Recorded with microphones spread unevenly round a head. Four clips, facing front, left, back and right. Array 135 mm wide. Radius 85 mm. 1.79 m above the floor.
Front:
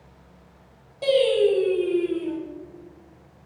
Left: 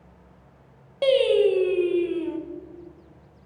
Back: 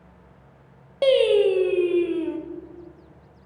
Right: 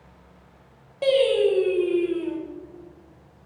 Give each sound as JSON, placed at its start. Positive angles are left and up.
{"t": 1.0, "sound": "singing", "azimuth_deg": -160, "distance_m": 0.9}